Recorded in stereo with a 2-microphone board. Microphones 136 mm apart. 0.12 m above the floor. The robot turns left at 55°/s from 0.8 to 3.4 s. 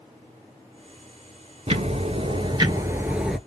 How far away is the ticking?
About 0.5 m.